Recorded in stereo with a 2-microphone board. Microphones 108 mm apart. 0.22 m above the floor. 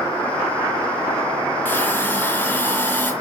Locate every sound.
1.6 s a hiss: 15° left (ahead or behind), 3.5 m